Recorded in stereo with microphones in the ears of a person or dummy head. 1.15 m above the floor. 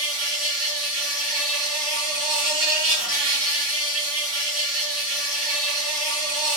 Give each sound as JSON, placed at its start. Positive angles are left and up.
{"t": 0.0, "sound": "an insect", "side_deg": -30, "distance_m": 1.1}